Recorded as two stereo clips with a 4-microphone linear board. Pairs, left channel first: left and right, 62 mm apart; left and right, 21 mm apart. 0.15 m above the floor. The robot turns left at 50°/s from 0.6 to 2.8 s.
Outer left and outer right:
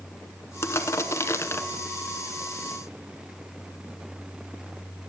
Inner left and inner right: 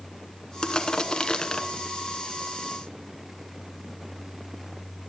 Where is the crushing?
40° left (ahead or behind), 0.9 m.